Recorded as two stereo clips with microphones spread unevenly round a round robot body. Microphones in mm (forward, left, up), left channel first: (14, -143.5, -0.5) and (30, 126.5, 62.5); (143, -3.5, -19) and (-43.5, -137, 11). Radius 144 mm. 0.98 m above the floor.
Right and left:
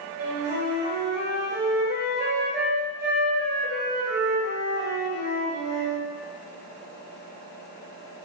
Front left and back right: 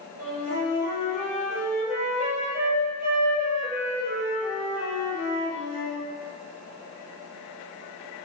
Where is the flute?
90° right, 1.1 m.